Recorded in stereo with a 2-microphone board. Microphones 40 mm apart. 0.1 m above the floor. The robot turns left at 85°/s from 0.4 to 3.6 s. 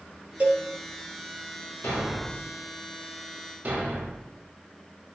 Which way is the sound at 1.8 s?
70° left (ahead or behind).